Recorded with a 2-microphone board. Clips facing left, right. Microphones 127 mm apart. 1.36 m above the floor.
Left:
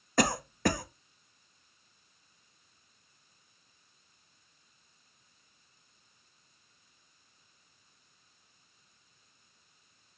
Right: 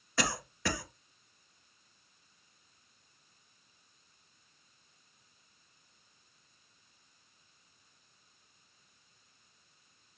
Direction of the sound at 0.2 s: 45° left (ahead or behind).